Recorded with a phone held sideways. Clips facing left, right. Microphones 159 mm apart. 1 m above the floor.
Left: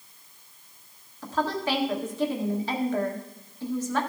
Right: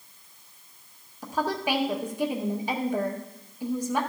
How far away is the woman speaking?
About 1.5 m.